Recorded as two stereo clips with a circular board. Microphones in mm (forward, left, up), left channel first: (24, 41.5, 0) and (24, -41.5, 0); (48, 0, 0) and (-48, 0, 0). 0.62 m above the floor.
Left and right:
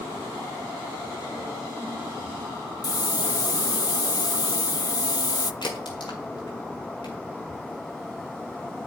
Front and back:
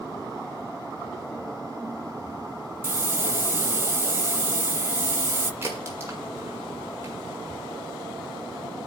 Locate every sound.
2.8 s a hiss: 115° left, 0.7 m
5.6 s a crack: 115° left, 6.5 m